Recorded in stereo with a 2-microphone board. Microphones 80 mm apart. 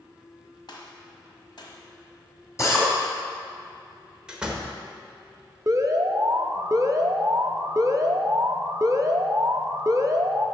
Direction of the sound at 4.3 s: 10° right (ahead or behind).